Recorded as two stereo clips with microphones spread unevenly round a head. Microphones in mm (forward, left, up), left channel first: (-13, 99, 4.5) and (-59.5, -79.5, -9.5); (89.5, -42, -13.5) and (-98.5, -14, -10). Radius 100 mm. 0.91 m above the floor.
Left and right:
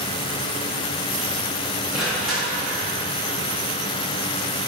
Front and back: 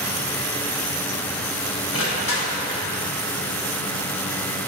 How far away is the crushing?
About 1.4 m.